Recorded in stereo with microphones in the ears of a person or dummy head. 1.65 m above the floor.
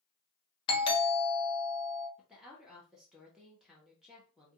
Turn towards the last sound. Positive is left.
turn(degrees=0)  # may be behind; listen again after turning